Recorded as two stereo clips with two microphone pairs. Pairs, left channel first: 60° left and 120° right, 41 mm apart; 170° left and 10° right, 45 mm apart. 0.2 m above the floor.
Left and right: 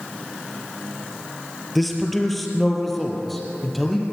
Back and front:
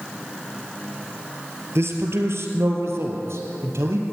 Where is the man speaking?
30° right, 4 m; by 4.0 s 25° right, 5 m.